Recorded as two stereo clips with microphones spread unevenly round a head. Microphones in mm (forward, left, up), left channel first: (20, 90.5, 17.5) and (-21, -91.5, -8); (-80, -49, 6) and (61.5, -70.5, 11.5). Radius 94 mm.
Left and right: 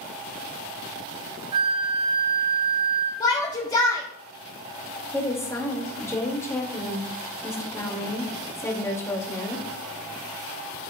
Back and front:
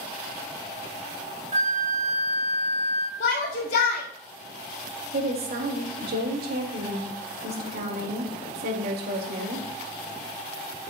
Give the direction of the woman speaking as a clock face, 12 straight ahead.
12 o'clock.